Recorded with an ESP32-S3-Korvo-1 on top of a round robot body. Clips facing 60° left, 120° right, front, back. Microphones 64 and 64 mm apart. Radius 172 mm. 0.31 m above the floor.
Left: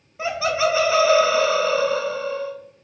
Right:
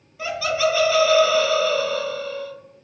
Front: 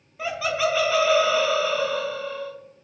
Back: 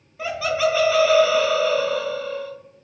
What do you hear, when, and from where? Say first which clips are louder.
0.2 s laughter: left 1 dB, back 3 dB; 90° left, 1.0 m